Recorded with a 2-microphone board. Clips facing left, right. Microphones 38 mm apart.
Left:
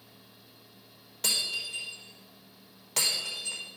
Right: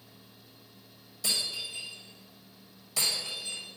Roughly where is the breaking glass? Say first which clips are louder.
Left 2 dB; left.